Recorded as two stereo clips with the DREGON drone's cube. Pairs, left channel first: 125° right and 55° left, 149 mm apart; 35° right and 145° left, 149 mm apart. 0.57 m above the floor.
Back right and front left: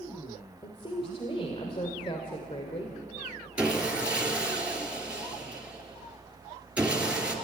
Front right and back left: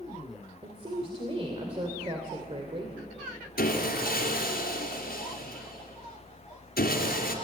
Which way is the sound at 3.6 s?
25° right.